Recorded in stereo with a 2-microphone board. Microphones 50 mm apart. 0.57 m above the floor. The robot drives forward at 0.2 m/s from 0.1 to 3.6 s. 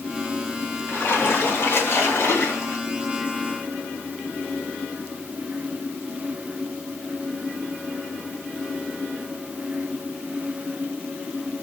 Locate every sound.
0.9 s a splash: 55° left (ahead or behind), 2.5 m; by 2.8 s 65° left (ahead or behind), 2.5 m